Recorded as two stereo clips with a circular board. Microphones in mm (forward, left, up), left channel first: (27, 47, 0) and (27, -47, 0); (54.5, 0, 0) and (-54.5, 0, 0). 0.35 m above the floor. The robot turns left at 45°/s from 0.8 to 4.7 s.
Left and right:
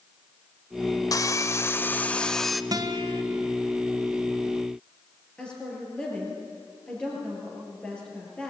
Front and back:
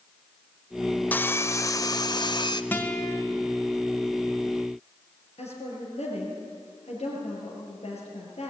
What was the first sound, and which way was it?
Sawing, 65° left.